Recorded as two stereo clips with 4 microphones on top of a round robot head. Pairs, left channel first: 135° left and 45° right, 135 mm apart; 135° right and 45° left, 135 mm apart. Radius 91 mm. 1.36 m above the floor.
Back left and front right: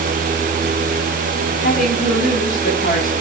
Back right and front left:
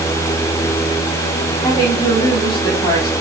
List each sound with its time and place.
1.6 s a woman speaking: 160° left, 3.5 m